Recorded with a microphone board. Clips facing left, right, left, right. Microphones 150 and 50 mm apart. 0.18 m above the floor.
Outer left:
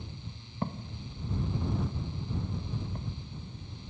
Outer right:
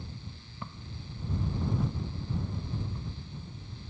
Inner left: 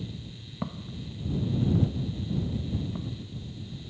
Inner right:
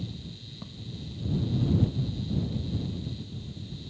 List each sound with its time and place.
0.6 s footsteps: 45° left (ahead or behind); by 3.8 s 55° left (ahead or behind)